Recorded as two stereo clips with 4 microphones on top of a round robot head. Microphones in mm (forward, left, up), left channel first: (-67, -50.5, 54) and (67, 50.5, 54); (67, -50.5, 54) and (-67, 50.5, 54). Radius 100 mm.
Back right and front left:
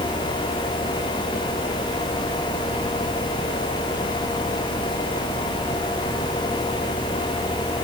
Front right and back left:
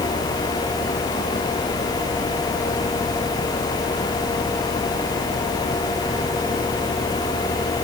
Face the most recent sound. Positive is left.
No sound to turn to.